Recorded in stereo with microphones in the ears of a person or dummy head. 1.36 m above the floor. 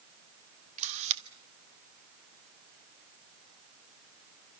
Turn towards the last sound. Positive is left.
turn(degrees=-45)  # may be behind; listen again after turning